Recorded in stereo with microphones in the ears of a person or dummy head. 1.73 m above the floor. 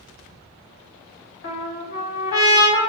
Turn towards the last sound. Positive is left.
turn(degrees=65)  # may be behind; listen again after turning